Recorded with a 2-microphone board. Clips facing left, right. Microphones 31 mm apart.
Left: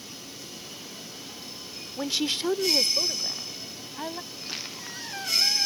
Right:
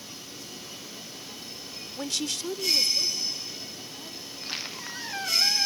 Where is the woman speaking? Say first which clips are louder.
Left 4 dB; 10° left (ahead or behind); by 4.2 s 65° left (ahead or behind).